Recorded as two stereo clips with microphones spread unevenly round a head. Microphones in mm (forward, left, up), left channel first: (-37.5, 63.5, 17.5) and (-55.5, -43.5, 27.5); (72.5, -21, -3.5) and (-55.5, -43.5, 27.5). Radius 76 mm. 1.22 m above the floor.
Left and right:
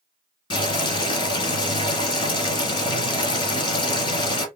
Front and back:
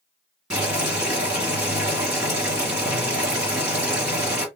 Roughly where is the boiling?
Behind left.